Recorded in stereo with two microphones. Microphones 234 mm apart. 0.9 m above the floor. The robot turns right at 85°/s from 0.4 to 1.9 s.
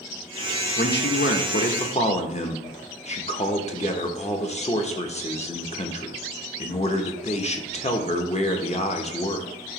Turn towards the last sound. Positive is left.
turn(degrees=145)